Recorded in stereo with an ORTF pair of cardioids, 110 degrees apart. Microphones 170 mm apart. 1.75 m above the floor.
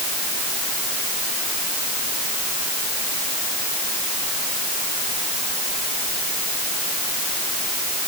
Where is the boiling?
No boiling in this recording.